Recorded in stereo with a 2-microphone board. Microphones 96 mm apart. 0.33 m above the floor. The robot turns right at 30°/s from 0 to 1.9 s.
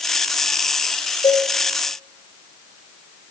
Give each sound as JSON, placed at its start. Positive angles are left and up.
{"t": 1.2, "sound": "a cowbell", "side_deg": 50, "distance_m": 3.0}